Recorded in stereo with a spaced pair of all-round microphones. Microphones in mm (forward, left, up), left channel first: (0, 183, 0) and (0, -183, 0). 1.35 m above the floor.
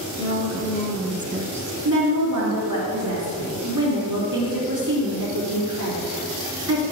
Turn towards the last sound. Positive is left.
turn(degrees=-55)  # may be behind; listen again after turning